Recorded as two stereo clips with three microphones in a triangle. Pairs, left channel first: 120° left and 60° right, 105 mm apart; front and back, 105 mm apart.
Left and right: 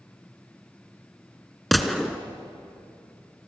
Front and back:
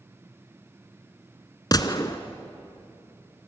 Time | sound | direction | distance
1.7 | a gunshot | 30° left | 1.5 m